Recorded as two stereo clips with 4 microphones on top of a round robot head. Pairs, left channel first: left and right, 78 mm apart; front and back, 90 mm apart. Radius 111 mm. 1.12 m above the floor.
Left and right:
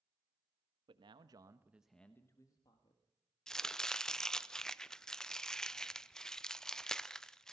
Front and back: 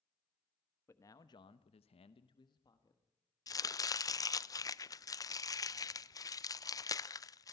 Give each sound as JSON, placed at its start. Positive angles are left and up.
{"t": 0.9, "sound": "a man speaking", "azimuth_deg": -65, "distance_m": 1.4}
{"t": 3.5, "sound": "chopping", "azimuth_deg": 10, "distance_m": 0.6}